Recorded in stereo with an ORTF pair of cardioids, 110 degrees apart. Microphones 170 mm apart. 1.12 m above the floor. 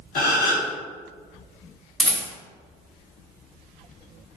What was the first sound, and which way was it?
A gasp, 60° left.